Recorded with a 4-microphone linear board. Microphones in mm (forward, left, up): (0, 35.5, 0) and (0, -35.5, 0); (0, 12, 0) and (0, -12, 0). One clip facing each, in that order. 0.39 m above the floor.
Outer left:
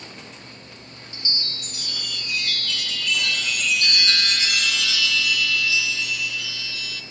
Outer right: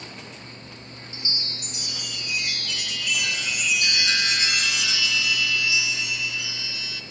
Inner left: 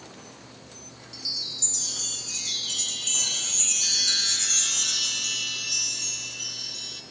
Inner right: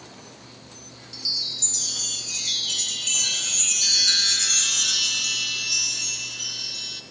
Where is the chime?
20° right (ahead or behind), 0.6 m.